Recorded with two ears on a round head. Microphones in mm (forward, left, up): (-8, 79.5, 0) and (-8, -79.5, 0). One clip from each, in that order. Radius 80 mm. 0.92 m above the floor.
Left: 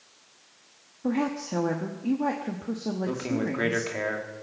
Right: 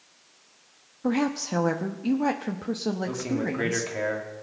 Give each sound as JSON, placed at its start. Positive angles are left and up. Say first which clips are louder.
{"t": 1.0, "sound": "a woman speaking", "louder": "right 2 dB", "side_deg": -75, "distance_m": 1.0}
{"t": 3.1, "sound": "a man speaking", "louder": "even", "side_deg": 10, "distance_m": 2.5}